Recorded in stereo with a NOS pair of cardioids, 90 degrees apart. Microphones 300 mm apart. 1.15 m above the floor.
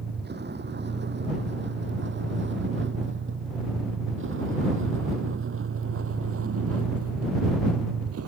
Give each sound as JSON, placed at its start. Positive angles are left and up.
{"t": 0.0, "sound": "a vehicle", "azimuth_deg": -35}